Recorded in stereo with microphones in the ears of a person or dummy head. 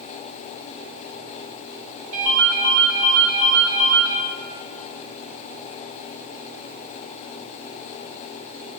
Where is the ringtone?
70° right (ahead or behind), 1.7 m.